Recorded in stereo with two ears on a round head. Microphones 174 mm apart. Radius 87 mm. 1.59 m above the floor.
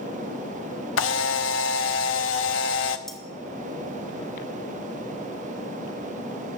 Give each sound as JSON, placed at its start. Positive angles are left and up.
{"t": 1.0, "sound": "a camera shutter", "side_deg": 75, "distance_m": 0.8}
{"t": 3.1, "sound": "cutlery clinking", "side_deg": 0, "distance_m": 1.6}